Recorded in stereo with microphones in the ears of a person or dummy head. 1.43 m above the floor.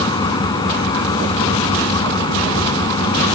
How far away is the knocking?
No knocking in this recording.